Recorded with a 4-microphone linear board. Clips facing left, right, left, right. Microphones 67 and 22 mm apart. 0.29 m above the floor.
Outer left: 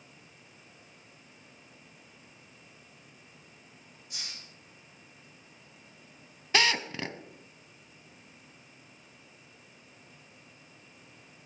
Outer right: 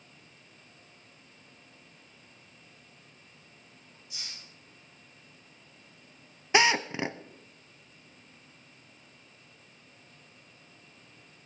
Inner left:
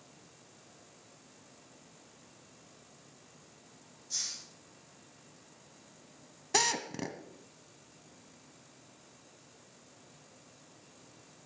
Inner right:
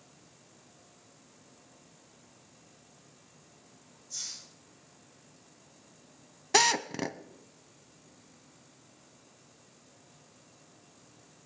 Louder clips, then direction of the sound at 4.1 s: Outer left 1 dB, inner left 3 dB; 50° left (ahead or behind).